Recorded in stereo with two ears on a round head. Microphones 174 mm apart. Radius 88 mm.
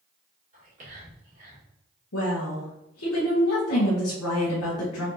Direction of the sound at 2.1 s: 85° left.